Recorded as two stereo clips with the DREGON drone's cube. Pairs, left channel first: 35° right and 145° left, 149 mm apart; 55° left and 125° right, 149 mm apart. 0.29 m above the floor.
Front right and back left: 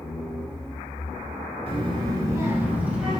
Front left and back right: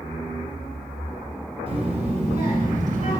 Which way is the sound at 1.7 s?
170° right.